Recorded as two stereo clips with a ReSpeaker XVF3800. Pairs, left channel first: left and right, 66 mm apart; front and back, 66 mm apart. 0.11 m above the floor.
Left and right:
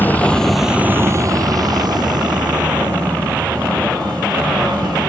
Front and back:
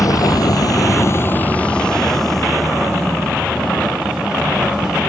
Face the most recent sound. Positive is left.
turn(degrees=-105)